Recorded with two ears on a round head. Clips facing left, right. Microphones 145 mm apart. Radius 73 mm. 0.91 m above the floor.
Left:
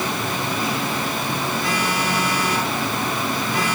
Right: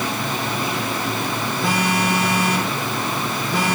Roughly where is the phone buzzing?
Right.